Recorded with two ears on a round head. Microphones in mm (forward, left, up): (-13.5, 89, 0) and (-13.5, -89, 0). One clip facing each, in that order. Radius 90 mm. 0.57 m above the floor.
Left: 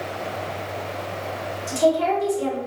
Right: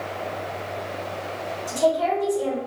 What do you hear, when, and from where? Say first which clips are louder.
1.7 s a woman speaking: left 2 dB; 35° left (ahead or behind), 2.5 m